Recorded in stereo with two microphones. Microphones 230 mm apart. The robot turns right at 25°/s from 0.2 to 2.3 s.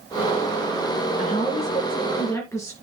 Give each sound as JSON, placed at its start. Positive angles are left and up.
{"t": 1.2, "sound": "a woman speaking", "side_deg": 40, "distance_m": 3.0}